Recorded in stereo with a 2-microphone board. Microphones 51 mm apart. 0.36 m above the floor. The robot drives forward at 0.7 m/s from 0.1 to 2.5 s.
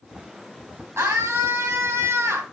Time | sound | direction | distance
1.0 | a scream | 60° right (ahead or behind) | 2.5 m